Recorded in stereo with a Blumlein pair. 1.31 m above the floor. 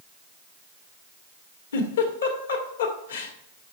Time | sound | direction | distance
1.7 | a giggle | 65° left | 1.8 m